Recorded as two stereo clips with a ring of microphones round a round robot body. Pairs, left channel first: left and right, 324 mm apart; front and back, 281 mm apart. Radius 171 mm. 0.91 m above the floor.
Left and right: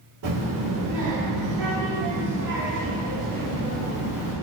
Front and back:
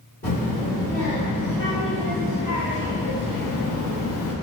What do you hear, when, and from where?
0.2 s a child speaking: 65° right, 1.7 m; by 4.3 s 45° left, 0.9 m